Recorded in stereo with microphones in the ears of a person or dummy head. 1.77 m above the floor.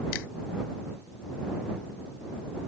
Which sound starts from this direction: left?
A finger snap, at 0.1 s.